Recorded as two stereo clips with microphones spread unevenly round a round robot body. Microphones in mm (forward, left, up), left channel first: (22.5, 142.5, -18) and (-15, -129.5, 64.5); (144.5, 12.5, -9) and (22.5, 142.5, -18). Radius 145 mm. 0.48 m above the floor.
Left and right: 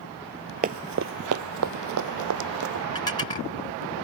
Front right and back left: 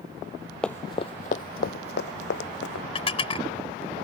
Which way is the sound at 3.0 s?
10° left.